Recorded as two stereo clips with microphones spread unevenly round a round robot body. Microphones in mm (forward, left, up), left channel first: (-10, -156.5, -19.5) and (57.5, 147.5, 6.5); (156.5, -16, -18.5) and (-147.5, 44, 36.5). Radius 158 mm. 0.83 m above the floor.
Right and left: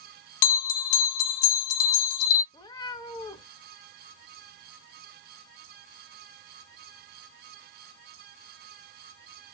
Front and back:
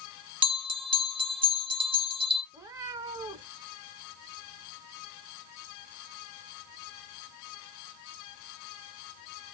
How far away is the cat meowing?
About 0.5 m.